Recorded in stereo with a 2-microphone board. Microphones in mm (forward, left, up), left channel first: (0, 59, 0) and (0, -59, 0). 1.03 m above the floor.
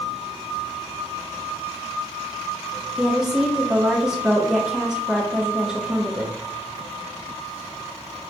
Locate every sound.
3.0 s a woman speaking: 5° right (ahead or behind), 1.0 m